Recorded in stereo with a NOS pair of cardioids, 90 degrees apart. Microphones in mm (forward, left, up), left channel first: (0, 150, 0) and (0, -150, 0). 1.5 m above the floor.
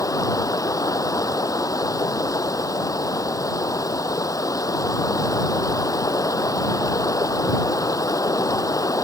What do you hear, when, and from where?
0.0 s running water: 10° left